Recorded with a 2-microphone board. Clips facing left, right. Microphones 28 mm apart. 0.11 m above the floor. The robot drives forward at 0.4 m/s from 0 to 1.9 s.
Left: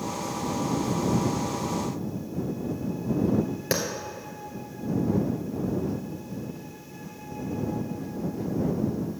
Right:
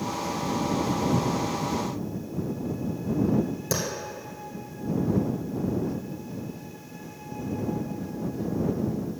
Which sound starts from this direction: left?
A clap, at 3.7 s.